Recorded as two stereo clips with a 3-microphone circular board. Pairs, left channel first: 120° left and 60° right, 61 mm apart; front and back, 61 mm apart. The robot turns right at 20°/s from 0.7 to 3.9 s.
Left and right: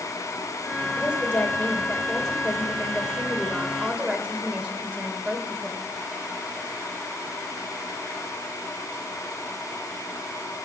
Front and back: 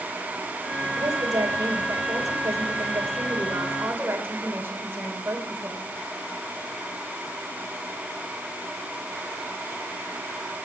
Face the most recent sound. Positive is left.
turn(degrees=-125)